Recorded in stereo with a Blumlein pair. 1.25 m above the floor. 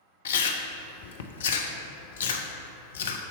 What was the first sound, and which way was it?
Chewing, 60° left.